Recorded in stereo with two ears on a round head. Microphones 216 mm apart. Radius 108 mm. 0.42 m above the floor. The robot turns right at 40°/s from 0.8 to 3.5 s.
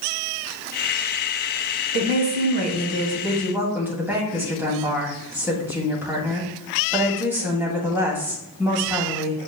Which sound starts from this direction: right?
A woman speaking, at 1.9 s.